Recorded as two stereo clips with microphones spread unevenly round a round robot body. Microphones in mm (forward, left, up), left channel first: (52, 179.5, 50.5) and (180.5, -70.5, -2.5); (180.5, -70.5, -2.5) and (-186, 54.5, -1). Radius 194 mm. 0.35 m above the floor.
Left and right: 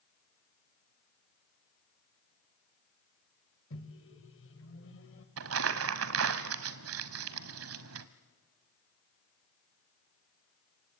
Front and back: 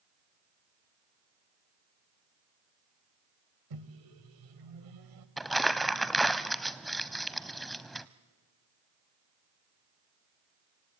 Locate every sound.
3.7 s a microwave: 165° left, 1.6 m
5.4 s crumpling: 110° right, 0.5 m